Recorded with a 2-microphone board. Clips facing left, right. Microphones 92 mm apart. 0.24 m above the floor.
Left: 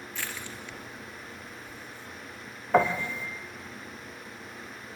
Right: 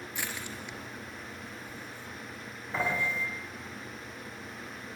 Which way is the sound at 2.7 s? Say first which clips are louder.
Left 7 dB; 70° left (ahead or behind).